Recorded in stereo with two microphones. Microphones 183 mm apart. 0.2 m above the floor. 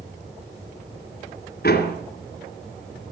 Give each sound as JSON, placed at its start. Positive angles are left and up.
{"t": 1.6, "sound": "a door slam", "side_deg": 60, "distance_m": 2.0}